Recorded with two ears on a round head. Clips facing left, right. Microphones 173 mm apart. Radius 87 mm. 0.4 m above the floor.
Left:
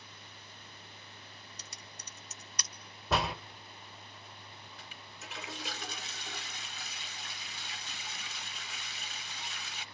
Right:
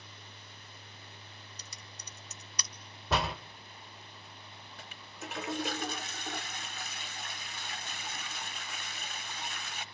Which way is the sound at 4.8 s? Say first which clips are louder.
Right 9 dB; 40° right (ahead or behind).